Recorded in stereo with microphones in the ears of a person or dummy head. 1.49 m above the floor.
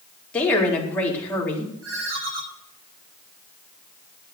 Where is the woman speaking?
10° left (ahead or behind), 3.5 m.